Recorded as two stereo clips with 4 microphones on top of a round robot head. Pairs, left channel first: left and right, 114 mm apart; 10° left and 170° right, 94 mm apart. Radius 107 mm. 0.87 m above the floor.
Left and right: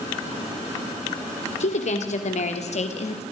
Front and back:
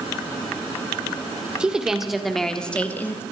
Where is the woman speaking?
110° left, 3.5 m; by 3.2 s 75° left, 2.5 m.